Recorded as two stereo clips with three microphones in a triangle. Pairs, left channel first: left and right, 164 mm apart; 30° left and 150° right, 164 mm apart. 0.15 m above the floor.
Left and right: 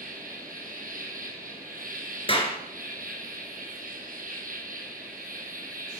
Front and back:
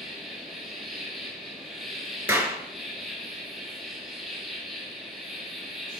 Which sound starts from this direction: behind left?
A clap, at 2.3 s.